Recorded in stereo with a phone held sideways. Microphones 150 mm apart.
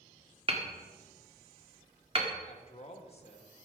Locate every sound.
0.5 s hammering: 40° right (ahead or behind), 1.8 m
2.5 s a man speaking: 45° left (ahead or behind), 1.6 m